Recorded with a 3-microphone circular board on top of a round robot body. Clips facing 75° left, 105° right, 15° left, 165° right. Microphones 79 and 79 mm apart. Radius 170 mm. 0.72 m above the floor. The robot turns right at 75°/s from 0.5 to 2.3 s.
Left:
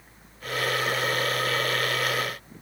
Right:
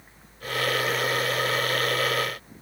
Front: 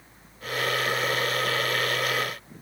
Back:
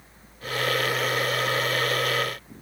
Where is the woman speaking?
No woman speaking in this recording.